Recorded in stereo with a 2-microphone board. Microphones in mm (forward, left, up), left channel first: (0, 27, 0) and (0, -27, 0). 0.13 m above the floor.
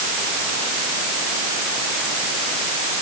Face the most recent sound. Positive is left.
No sound to turn to.